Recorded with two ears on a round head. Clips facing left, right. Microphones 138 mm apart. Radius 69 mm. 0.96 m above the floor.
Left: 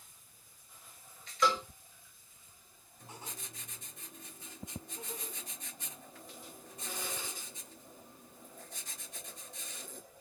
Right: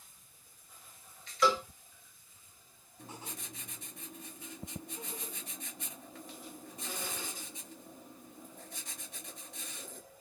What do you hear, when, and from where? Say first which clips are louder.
1.4 s a cowbell: right 2 dB; 5° right (ahead or behind), 0.7 m
3.0 s writing: right 2 dB; 50° right (ahead or behind), 1.4 m